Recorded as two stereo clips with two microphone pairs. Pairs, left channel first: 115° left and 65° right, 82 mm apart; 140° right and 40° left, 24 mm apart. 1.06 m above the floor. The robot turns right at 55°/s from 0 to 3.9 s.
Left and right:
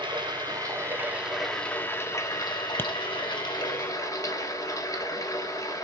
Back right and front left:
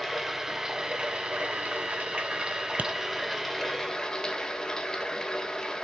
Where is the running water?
55° right, 1.3 m; by 5.9 s 160° left, 1.3 m.